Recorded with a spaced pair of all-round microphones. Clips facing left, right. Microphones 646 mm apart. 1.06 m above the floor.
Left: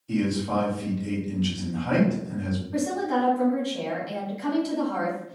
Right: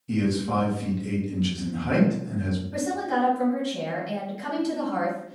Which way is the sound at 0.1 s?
50° right (ahead or behind).